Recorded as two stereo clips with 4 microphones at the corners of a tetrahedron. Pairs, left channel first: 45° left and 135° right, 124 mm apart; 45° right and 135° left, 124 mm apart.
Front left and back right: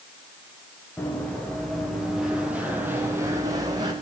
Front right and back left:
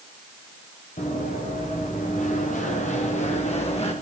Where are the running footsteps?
30° right, 5.5 m; by 3.9 s 80° right, 5 m.